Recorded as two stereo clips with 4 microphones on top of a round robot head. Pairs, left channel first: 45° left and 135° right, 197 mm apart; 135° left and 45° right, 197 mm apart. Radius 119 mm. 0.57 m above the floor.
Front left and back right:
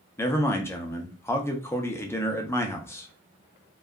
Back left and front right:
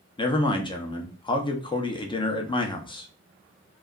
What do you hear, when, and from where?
0.2 s a man speaking: 105° left, 0.6 m